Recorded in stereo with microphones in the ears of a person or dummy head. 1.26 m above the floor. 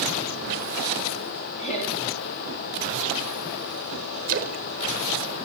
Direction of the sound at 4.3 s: 45° right (ahead or behind).